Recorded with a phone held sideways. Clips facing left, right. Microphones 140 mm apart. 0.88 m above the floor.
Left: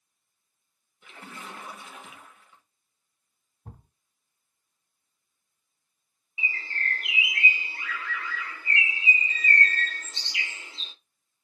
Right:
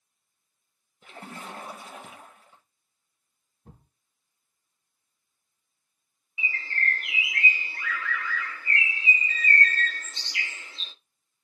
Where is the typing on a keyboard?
I don't hear typing on a keyboard.